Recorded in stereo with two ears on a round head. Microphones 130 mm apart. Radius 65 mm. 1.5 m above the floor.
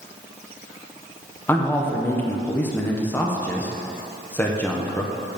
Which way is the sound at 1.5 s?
15° left (ahead or behind).